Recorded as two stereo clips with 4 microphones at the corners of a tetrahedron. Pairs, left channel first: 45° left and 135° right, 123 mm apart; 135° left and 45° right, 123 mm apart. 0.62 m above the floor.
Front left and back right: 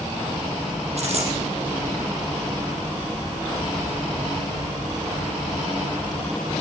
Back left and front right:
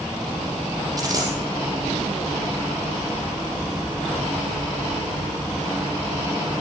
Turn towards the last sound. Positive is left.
turn(degrees=-105)